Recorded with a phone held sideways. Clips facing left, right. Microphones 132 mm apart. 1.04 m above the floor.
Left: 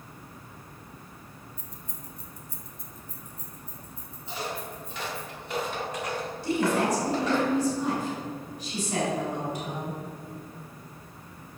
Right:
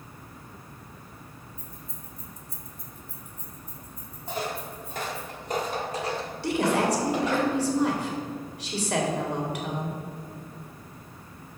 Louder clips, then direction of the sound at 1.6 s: Right 1 dB; 75° left (ahead or behind).